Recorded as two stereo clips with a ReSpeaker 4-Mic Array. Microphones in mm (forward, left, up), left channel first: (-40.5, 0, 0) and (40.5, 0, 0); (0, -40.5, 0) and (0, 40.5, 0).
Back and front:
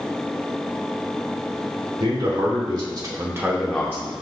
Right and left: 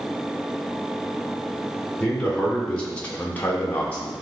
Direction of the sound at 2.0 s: 10° right.